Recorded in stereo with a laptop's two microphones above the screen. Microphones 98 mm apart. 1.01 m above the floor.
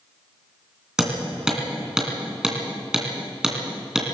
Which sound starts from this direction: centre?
Hammering, at 1.0 s.